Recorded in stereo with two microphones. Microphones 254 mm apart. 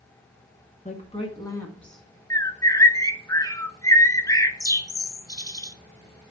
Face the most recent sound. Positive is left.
turn(degrees=15)  # may be behind; listen again after turning